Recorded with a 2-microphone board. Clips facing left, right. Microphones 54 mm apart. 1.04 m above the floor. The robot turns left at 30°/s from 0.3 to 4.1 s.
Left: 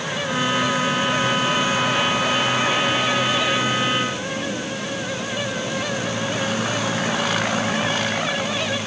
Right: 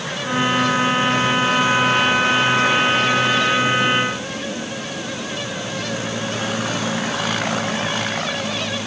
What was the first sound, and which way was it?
Only background noise.